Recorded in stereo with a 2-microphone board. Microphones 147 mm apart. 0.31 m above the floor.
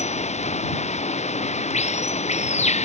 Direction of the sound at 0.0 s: 50° left (ahead or behind).